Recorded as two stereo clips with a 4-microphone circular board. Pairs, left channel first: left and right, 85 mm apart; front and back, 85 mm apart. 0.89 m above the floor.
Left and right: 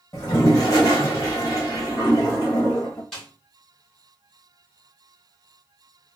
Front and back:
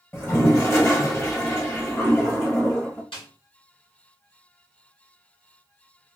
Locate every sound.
0.1 s a toilet flushing: 50° left, 1.0 m
3.1 s a snare drum: 10° left, 1.8 m